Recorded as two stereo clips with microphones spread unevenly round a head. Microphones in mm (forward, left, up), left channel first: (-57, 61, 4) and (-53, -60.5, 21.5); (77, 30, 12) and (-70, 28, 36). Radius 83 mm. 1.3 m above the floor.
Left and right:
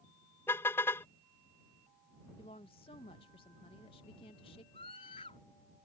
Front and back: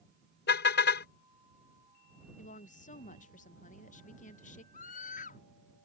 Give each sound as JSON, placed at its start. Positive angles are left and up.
{"t": 0.5, "sound": "a car horn", "azimuth_deg": 10}
{"t": 2.4, "sound": "a woman speaking", "azimuth_deg": 35}
{"t": 4.7, "sound": "a scream", "azimuth_deg": 30}